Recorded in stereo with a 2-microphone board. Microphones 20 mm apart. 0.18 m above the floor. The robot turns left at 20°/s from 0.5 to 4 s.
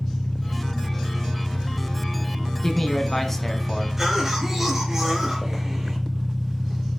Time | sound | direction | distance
0.0 | an engine running | 65° left | 1.5 m
2.6 | a man speaking | 20° left (ahead or behind) | 1.3 m
4.0 | a cough | 15° right (ahead or behind) | 3 m